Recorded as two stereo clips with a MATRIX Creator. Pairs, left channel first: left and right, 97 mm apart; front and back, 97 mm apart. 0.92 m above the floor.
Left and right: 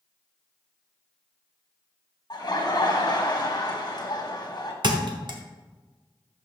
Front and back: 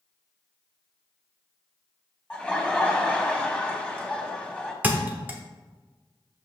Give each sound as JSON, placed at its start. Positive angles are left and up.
{"t": 2.3, "sound": "laughter", "azimuth_deg": 75, "distance_m": 1.2}
{"t": 4.8, "sound": "a thud", "azimuth_deg": -110, "distance_m": 0.8}